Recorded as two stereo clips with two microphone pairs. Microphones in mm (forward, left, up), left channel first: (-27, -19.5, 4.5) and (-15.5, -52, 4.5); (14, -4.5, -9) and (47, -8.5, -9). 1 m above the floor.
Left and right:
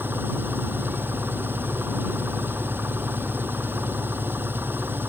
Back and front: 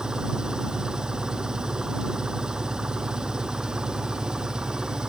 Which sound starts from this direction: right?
An engine running, at 0.0 s.